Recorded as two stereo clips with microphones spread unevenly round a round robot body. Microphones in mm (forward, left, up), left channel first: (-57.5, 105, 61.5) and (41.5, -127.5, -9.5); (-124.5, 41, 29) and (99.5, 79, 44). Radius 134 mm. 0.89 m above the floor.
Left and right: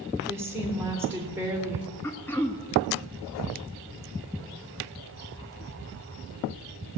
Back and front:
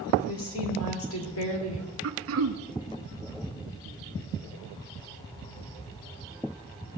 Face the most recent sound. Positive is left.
turn(degrees=25)